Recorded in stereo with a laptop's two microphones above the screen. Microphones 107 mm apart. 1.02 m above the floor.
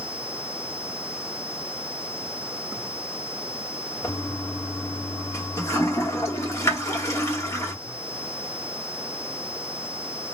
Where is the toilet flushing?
25° left (ahead or behind), 1.0 m.